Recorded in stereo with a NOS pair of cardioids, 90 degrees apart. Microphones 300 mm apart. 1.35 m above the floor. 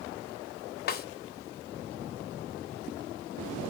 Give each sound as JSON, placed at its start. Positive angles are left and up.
{"t": 0.9, "sound": "a snare drum", "azimuth_deg": 35, "distance_m": 0.7}